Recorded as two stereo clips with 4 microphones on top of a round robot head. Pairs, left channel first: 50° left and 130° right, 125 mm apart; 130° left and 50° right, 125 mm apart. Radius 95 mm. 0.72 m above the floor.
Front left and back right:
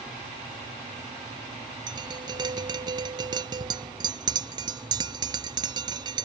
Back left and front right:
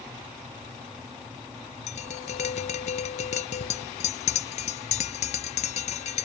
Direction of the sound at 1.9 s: 170° left.